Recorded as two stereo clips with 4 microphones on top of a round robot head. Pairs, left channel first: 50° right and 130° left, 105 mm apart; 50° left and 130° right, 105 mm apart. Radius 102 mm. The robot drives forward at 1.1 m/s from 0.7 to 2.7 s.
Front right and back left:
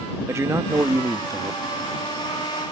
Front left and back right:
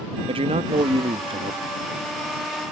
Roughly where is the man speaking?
Behind.